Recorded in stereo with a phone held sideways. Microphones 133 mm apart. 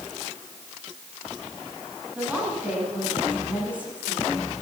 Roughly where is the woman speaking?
Centre.